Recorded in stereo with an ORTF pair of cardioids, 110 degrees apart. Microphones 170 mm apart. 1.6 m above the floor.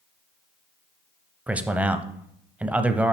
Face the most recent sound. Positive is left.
turn(degrees=-10)